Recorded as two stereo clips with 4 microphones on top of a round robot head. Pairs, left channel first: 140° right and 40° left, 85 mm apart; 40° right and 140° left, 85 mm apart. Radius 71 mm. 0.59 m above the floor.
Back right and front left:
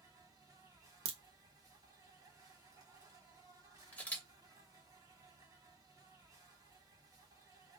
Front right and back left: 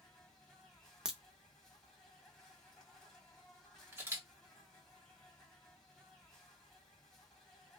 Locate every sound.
0.0 s an insect: 35° left, 1.4 m
1.1 s a crack: 55° left, 0.5 m
3.9 s a camera shutter: 165° left, 1.4 m